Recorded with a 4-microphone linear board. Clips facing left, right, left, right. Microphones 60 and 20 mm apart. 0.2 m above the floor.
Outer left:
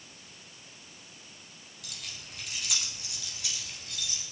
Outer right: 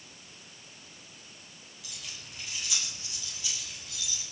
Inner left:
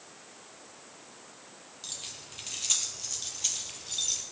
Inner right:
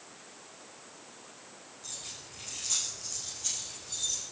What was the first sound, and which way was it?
Keys jangling, 65° left (ahead or behind).